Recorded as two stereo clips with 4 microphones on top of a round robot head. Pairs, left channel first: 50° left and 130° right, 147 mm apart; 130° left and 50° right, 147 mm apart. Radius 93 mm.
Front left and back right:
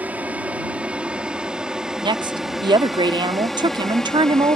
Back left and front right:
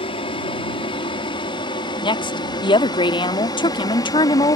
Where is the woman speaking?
Straight behind.